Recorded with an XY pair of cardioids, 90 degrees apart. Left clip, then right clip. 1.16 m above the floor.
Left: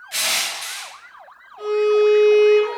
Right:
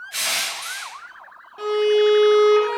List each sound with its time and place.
0.1 s crushing: 50° left, 0.9 m
1.6 s a violin: 60° right, 0.8 m